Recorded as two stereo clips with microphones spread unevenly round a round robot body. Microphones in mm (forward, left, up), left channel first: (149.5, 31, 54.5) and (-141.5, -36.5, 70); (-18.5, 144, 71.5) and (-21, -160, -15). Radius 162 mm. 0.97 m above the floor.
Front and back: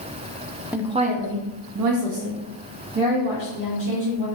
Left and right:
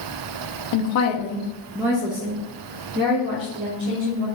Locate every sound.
0.7 s a woman speaking: 105° left, 0.6 m; by 4.3 s 135° right, 2 m